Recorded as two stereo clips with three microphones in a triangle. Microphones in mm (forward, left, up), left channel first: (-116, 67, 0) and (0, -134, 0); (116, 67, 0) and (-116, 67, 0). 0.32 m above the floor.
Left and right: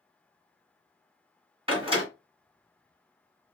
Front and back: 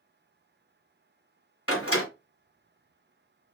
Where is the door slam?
5° left, 2.5 m.